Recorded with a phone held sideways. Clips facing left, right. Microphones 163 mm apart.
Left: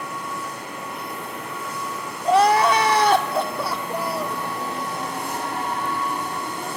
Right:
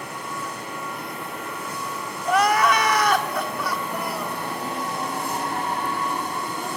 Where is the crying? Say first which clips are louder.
Left 3 dB; 30° left (ahead or behind), 1.8 m.